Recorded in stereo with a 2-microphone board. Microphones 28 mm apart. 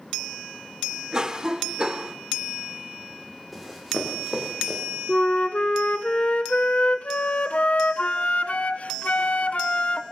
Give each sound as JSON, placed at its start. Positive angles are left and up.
{"t": 1.1, "sound": "a cough", "side_deg": -25, "distance_m": 1.4}
{"t": 3.5, "sound": "running footsteps", "side_deg": 0, "distance_m": 6.0}
{"t": 5.1, "sound": "a flute", "side_deg": 55, "distance_m": 0.7}